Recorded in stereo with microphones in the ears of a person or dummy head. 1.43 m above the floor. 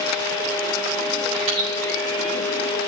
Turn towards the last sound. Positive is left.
turn(degrees=-40)  # may be behind; listen again after turning